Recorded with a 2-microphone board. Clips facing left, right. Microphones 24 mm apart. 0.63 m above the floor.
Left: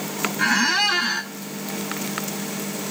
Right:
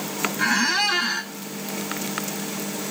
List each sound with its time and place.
0.4 s a squeak: 10° left (ahead or behind), 0.7 m